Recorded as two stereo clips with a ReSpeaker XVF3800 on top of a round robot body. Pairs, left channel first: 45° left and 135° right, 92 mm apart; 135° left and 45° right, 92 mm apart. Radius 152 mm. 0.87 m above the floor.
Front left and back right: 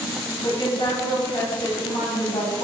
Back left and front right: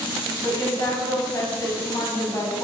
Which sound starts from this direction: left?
A woman speaking, at 0.4 s.